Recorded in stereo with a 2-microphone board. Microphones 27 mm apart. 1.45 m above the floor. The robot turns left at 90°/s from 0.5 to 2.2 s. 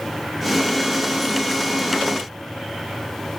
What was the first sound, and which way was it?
Only background noise.